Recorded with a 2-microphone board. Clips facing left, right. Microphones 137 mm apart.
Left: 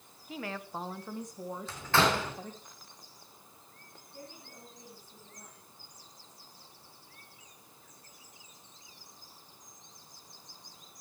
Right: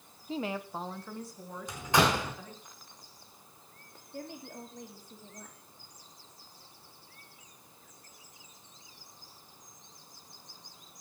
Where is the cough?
No cough in this recording.